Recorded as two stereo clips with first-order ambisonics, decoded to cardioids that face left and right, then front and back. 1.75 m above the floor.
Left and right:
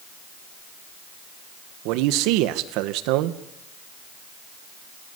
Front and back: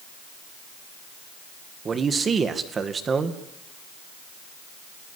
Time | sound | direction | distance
1.9 | a man speaking | 110° right | 1.9 m